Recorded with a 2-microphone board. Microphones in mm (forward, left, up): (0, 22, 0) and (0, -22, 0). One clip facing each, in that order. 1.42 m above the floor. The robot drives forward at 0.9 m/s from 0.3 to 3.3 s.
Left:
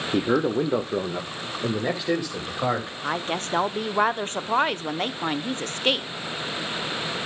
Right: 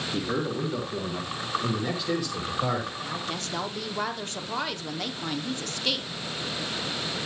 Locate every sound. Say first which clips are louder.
0.1 s a man speaking: left 8 dB; 85° left, 1.1 m; by 2.9 s 25° left (ahead or behind), 2.5 m
3.0 s a woman speaking: left 6 dB; 50° left (ahead or behind), 0.5 m; by 6.1 s 35° left (ahead or behind), 0.7 m